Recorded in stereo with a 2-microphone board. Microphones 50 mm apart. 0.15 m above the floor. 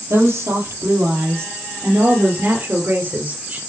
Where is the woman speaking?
65° right (ahead or behind), 4 m; by 3.6 s 40° right (ahead or behind), 3 m.